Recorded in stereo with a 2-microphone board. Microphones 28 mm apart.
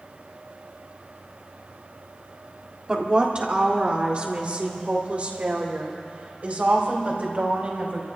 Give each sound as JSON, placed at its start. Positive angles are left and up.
{"t": 2.9, "sound": "a woman speaking", "side_deg": -35, "distance_m": 1.5}